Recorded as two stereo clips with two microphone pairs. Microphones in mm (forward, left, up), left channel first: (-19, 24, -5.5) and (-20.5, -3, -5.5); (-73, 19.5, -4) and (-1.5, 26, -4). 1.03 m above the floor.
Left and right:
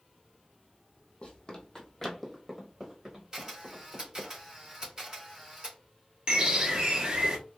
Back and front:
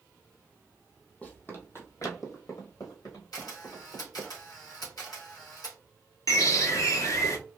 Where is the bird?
145° right, 0.9 m.